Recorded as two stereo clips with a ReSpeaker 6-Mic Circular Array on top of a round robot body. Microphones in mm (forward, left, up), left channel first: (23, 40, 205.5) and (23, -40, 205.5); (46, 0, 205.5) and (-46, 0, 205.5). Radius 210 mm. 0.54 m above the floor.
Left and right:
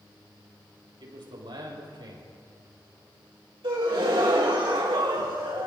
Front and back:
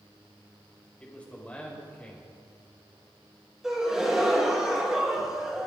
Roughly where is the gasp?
Right.